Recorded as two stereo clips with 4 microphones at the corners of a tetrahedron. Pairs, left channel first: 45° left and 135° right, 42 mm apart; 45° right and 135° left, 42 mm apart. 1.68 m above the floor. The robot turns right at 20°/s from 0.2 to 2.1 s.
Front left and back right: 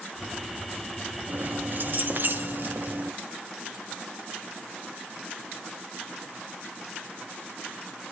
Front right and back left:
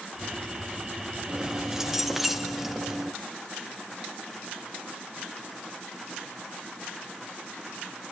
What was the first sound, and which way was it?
Keys jangling, 160° right.